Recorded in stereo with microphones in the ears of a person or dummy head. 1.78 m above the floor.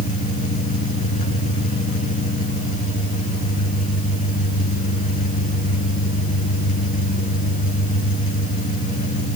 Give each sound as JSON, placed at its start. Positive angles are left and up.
{"t": 0.0, "sound": "an engine running", "side_deg": 40, "distance_m": 5.5}